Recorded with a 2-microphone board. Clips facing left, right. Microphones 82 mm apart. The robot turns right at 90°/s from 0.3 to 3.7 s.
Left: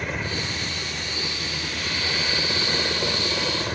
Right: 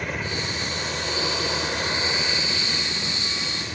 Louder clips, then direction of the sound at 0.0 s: Even; straight behind.